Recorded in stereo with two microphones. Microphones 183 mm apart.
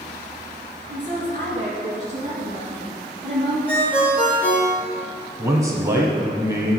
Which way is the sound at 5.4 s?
20° right (ahead or behind).